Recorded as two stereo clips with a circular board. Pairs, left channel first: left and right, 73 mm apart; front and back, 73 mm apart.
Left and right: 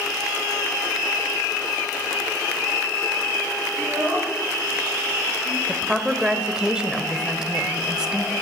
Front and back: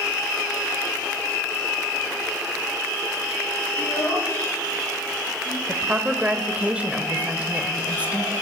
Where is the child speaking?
25° right, 7 m.